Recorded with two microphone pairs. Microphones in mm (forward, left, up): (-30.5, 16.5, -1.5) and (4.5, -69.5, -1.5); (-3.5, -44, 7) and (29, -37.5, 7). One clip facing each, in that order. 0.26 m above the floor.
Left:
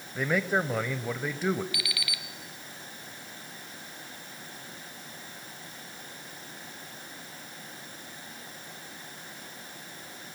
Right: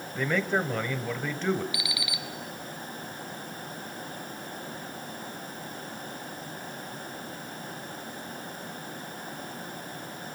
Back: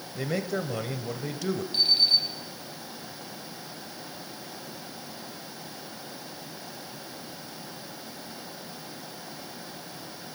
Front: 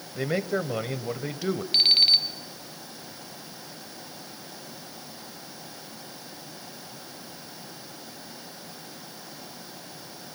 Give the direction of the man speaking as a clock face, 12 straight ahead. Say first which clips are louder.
Even, front 3 dB; 11 o'clock.